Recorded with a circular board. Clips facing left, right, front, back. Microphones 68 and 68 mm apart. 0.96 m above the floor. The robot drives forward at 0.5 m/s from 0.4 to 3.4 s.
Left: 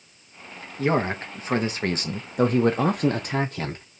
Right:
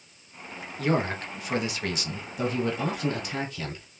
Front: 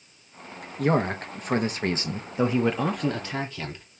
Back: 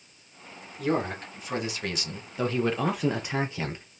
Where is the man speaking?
25° left, 1.3 m; by 3.8 s 115° left, 0.8 m.